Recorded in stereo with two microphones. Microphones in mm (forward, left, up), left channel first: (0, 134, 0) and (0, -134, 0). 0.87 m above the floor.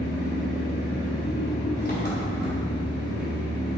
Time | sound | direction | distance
0.0 | an engine running | 35° left (ahead or behind) | 3 m